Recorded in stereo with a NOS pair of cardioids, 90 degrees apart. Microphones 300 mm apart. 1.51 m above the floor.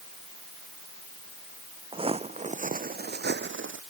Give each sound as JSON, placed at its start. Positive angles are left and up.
{"t": 1.9, "sound": "footsteps", "azimuth_deg": -20}